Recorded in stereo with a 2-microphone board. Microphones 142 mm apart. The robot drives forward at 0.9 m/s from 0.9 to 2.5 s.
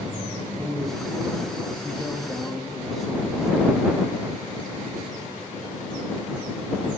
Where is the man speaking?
Centre (ahead or behind), 1.4 m.